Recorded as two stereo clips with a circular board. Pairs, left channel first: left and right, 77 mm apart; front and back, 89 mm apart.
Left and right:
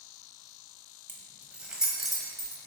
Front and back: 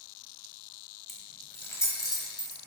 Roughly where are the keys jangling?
Right.